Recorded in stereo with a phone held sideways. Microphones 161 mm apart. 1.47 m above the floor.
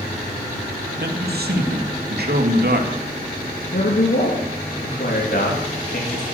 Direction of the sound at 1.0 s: 80° right.